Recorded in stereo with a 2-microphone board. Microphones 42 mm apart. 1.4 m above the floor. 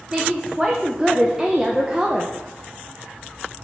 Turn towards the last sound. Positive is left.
turn(degrees=-15)  # may be behind; listen again after turning